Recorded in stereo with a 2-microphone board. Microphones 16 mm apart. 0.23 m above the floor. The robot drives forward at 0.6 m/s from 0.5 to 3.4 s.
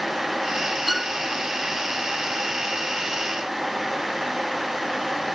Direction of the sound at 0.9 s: 10° right (ahead or behind).